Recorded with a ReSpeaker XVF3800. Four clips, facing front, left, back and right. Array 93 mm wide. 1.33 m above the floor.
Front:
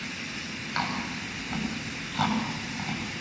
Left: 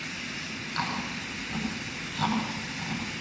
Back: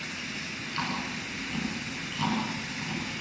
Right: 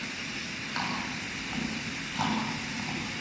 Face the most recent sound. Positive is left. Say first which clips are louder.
# left 1 dB, front 2 dB
turn(degrees=-15)